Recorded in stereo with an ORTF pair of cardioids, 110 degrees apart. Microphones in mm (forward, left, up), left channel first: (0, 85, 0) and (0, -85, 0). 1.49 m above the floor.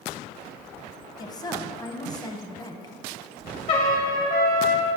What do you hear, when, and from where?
1.2 s a woman speaking: 25° left, 0.9 m
3.7 s a trumpet: 60° left, 2 m